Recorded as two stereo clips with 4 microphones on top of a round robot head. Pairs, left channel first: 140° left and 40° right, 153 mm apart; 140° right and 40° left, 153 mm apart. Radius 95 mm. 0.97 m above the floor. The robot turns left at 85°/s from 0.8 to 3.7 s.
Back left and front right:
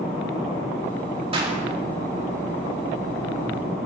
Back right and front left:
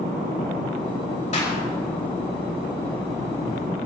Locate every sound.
1.3 s a clap: 95° right, 5 m; by 1.6 s 110° right, 5 m